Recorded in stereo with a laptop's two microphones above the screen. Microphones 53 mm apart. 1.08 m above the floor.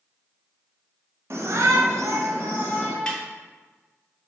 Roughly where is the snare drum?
Centre.